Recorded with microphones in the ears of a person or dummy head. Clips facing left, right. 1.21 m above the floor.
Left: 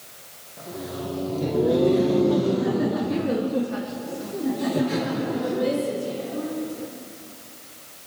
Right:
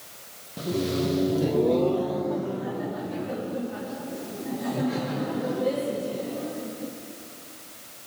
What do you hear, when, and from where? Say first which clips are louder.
0.6 s laughter: right 7 dB; 50° right (ahead or behind), 1.0 m; by 6.9 s 85° left, 4 m